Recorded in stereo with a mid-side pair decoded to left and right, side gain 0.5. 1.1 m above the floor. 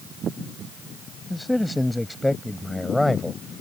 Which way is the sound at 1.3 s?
5° left.